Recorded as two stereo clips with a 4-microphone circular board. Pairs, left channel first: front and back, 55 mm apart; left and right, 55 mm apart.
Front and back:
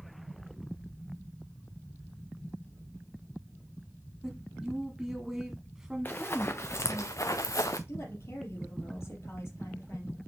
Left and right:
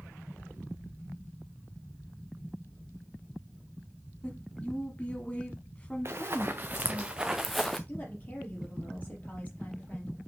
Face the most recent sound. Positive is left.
turn(degrees=35)